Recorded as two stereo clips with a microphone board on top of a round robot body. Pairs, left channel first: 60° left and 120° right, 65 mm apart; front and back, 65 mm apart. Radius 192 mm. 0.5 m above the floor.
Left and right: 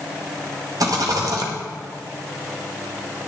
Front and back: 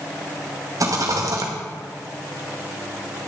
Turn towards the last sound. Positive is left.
turn(degrees=-145)